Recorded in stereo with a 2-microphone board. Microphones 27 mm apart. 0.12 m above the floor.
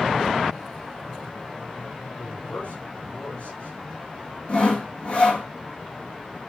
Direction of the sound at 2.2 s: 55° left (ahead or behind).